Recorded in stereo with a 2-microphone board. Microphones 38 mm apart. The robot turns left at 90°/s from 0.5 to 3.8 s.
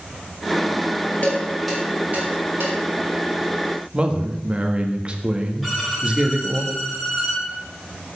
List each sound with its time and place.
1.2 s dishes clattering: 45° left (ahead or behind), 4 m; by 2.8 s 85° right, 4 m
3.9 s a man speaking: 30° right (ahead or behind), 1.4 m
5.6 s a violin: 5° right (ahead or behind), 3.5 m